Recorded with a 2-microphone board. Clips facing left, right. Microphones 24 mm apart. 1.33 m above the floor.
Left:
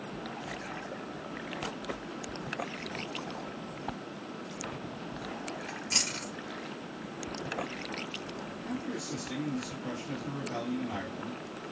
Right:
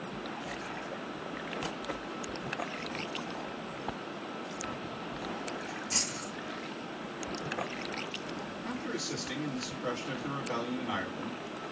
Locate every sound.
5.7 s chewing: 75° left (ahead or behind), 2 m
8.6 s a man speaking: 65° right (ahead or behind), 2.5 m